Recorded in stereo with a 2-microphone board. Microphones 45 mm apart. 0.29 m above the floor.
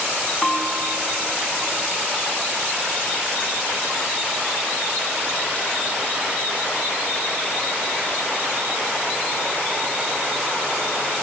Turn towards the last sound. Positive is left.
turn(degrees=10)  # may be behind; listen again after turning